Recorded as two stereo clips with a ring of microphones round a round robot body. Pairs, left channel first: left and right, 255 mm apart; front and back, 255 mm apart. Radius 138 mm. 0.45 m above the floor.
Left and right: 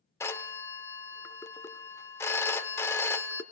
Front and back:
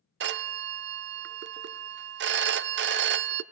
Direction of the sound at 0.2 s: 165° left.